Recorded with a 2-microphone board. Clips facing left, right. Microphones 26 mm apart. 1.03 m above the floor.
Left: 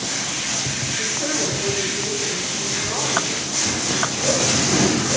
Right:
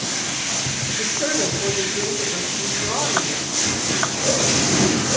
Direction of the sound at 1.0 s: 30° right (ahead or behind).